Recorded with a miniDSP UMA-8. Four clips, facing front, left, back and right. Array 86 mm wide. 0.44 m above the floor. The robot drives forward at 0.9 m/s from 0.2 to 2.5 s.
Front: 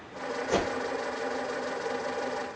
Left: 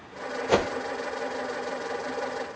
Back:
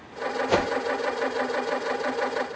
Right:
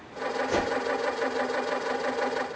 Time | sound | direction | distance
0.5 | a whoosh | 130° left | 0.5 m